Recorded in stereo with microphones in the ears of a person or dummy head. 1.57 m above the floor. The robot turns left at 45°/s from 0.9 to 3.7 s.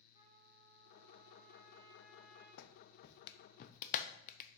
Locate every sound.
0.1 s a trumpet: 155° right, 3.5 m; by 2.5 s 135° left, 3.5 m
2.6 s a clap: 65° left (ahead or behind), 0.5 m; by 4.6 s 50° left (ahead or behind), 0.5 m